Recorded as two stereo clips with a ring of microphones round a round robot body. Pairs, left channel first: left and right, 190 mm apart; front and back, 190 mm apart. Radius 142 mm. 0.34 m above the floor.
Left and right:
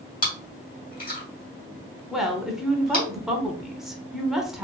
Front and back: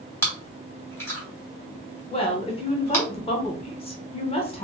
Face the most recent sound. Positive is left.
turn(degrees=-5)